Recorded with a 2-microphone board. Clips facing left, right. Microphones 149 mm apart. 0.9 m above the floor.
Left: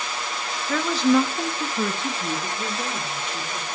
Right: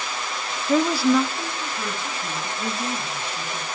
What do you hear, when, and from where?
0.7 s a woman speaking: 30° right (ahead or behind), 1.0 m; by 3.6 s 80° left, 3 m